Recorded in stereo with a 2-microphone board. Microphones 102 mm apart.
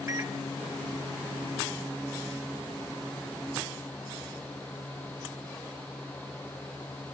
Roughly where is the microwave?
Right.